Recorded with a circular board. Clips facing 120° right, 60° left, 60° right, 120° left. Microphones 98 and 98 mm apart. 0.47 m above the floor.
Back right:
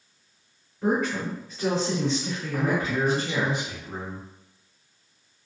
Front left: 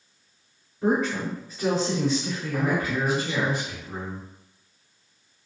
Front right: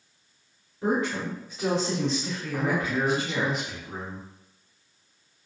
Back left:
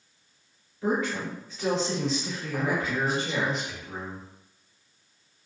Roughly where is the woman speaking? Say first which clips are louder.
Front left 1 dB, front right 1 dB; ahead.